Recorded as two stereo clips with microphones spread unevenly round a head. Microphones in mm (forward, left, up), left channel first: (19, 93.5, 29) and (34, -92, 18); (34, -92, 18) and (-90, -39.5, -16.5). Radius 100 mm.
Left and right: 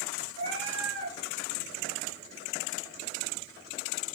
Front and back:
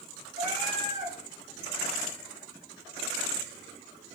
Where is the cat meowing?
155° right, 8 m.